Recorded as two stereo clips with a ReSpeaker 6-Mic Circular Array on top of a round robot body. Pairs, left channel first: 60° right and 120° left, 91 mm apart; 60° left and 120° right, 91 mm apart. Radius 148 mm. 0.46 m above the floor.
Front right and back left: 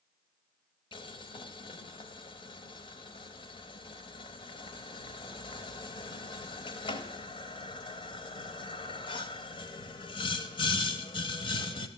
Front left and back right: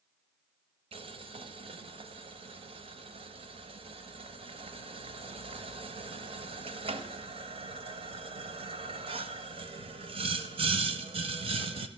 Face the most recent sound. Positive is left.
turn(degrees=-95)